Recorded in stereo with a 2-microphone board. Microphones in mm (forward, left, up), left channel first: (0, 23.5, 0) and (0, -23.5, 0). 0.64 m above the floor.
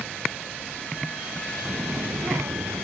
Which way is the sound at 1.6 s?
30° right (ahead or behind).